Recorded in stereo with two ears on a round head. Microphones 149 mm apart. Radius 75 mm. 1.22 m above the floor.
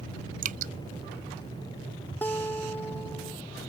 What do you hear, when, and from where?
0.4 s dripping: 50° right (ahead or behind)
2.2 s a guitar: 10° left (ahead or behind)